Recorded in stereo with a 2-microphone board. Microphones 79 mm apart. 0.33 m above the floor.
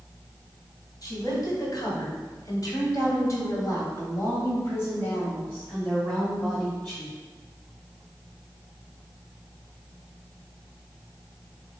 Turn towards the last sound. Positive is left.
turn(degrees=10)  # may be behind; listen again after turning